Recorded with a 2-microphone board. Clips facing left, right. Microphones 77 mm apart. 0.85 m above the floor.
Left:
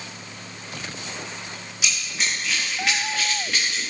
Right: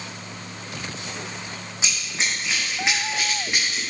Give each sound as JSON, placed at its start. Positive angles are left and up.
{"t": 1.8, "sound": "running footsteps", "side_deg": -30, "distance_m": 3.5}